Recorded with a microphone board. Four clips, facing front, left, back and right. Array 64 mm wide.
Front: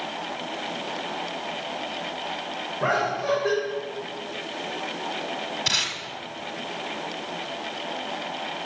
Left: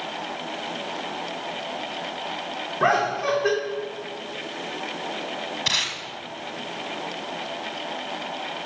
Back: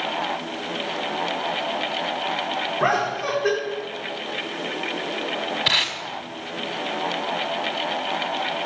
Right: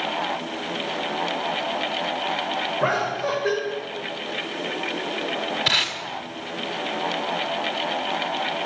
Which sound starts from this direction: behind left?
Laughter, at 2.8 s.